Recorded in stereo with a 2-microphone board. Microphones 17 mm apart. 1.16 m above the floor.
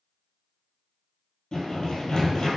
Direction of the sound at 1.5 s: 45° left (ahead or behind).